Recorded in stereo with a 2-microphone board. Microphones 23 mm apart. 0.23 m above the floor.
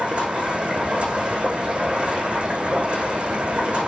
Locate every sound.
0.0 s running water: 55° right (ahead or behind), 6.5 m